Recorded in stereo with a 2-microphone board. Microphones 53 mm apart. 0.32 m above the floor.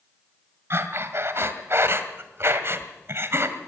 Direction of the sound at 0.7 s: 50° right (ahead or behind).